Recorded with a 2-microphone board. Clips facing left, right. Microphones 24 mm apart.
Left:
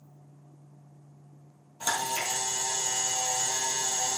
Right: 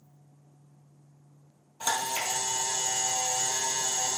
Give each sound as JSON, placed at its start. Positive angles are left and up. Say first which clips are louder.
{"t": 1.8, "sound": "a camera shutter", "louder": "even", "side_deg": -20, "distance_m": 2.5}